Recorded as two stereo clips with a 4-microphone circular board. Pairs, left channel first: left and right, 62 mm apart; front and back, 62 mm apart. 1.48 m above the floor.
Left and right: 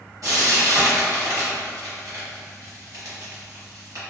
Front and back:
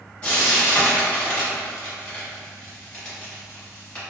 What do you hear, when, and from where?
0.2 s frying: 65° right, 1.2 m